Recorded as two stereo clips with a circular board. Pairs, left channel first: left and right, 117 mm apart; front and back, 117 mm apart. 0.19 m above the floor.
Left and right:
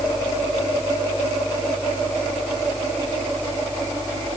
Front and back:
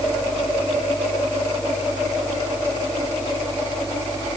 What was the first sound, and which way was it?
Only background noise.